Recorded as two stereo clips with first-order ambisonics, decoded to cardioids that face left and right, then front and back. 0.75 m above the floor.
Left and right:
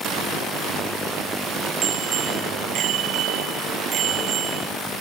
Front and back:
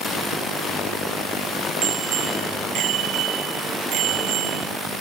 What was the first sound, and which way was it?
A bicycle bell, 140° right.